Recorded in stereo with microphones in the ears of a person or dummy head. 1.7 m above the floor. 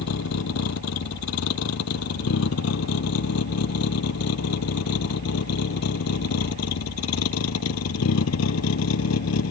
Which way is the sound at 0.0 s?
75° left (ahead or behind).